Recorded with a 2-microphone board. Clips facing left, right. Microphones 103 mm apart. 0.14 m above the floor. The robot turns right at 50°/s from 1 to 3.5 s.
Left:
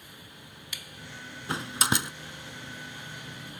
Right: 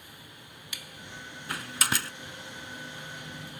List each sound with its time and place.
1.5 s a door slam: 25° left (ahead or behind); by 2.1 s 20° left (ahead or behind)